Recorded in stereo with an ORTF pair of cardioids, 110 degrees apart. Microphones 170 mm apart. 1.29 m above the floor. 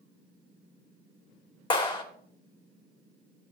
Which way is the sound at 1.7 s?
30° left.